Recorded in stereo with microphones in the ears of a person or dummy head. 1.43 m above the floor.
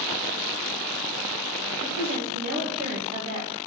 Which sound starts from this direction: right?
A woman speaking, at 1.8 s.